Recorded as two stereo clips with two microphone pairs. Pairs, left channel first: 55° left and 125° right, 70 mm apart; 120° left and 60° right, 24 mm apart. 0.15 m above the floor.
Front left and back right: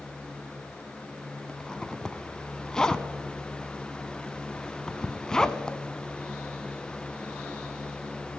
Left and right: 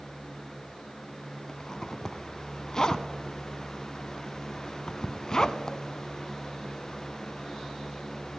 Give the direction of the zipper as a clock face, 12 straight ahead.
8 o'clock.